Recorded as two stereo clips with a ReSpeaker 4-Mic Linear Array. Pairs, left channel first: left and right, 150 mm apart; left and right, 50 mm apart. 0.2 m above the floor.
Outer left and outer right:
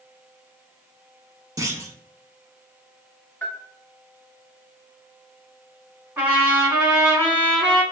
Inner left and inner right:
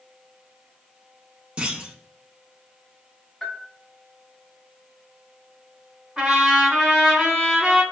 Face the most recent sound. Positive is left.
turn(degrees=-10)  # may be behind; listen again after turning